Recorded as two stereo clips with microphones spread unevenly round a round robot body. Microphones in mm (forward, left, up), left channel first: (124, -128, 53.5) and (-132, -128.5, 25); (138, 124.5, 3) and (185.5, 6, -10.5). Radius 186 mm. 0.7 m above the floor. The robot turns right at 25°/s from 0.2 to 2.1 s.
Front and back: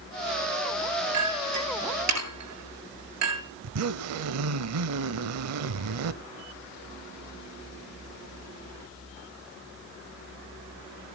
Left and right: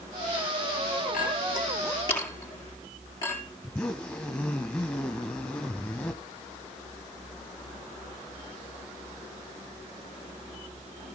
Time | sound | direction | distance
1.1 | a clink | 165° left | 7.5 m
3.6 | a zipper | 175° right | 0.7 m